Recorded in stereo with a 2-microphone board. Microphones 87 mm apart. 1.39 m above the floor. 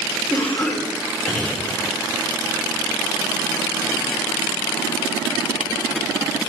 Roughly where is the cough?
Centre.